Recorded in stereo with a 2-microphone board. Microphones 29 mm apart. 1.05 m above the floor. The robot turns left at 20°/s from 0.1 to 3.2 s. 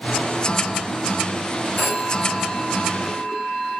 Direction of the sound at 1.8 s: 55° left (ahead or behind).